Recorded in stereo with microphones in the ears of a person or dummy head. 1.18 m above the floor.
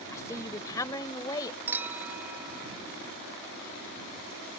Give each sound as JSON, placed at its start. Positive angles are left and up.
{"t": 0.1, "sound": "a woman speaking", "side_deg": 15}
{"t": 1.7, "sound": "a clink", "side_deg": -15}